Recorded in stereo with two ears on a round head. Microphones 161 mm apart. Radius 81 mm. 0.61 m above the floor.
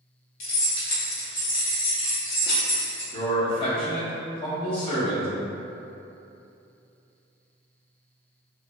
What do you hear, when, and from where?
0.4 s keys jangling: 60° left (ahead or behind), 0.8 m
3.1 s a man speaking: 30° left (ahead or behind), 1.1 m